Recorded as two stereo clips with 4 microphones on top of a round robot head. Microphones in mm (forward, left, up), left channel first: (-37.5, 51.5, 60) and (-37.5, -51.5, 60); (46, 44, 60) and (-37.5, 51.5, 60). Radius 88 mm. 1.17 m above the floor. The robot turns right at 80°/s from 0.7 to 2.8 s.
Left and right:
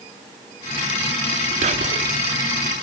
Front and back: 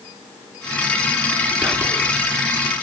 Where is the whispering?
95° right, 0.7 m; by 2.1 s 55° right, 0.7 m.